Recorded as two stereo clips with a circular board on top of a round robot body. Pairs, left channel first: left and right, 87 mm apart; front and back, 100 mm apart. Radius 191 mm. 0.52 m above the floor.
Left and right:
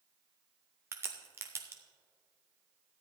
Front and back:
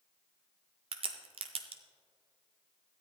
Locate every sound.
0.9 s a crack: 150° right, 0.6 m